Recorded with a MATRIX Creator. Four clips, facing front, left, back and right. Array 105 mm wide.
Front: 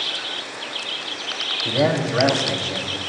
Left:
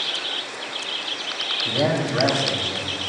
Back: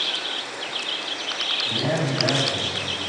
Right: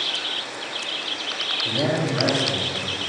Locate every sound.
1.6 s a man speaking: 10° left, 6.5 m; by 3.0 s 15° left, 6 m